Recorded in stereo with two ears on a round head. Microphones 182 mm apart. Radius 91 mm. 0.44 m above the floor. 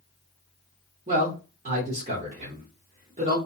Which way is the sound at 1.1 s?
35° right (ahead or behind).